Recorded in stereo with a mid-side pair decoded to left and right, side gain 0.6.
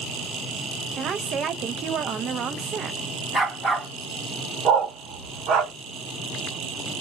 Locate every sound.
1.0 s a woman speaking: 45° right, 0.6 m
3.3 s a dog barking: 15° right, 2.5 m
4.7 s a dog barking: 65° right, 1.6 m